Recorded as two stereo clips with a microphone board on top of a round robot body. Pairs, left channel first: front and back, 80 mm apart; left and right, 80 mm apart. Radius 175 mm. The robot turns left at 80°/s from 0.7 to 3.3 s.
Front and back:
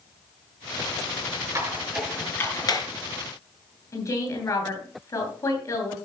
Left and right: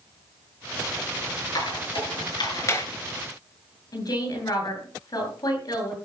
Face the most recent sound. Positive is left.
turn(degrees=50)